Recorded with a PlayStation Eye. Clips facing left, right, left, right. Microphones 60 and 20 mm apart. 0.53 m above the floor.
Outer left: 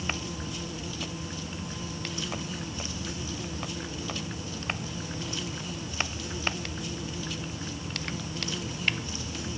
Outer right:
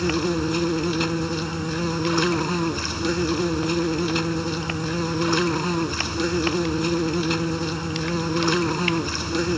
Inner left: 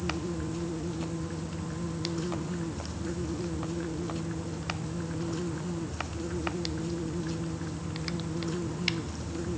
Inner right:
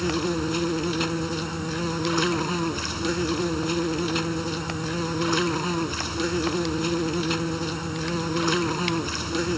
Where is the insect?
70° right (ahead or behind).